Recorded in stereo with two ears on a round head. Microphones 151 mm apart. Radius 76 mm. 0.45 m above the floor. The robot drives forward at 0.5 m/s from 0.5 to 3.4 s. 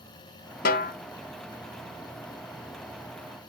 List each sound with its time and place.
0.7 s a snare drum: 55° left (ahead or behind), 1.0 m